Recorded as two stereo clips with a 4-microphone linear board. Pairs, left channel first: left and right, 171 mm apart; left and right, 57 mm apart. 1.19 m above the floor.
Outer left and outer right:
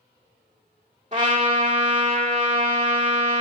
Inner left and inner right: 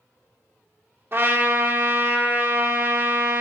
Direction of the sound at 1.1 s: 45° right (ahead or behind).